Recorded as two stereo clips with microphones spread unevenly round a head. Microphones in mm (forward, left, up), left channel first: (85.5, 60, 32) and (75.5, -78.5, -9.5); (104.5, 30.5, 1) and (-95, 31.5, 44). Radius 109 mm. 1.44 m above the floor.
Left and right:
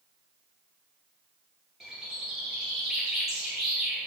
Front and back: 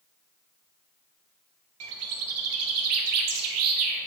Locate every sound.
1.8 s a bird: 175° left, 0.7 m